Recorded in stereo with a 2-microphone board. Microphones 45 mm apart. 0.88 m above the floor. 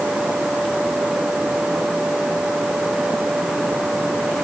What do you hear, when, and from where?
Only background noise.